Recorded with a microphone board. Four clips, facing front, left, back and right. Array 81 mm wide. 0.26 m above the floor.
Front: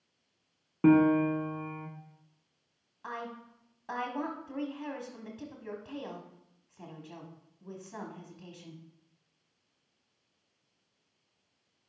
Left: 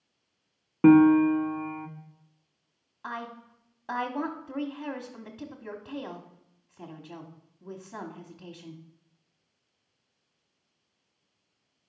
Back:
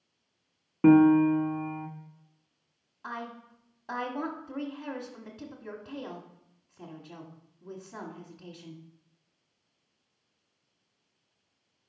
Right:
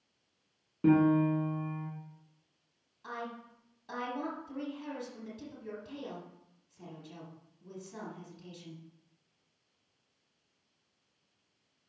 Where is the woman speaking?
90° left, 1.4 m.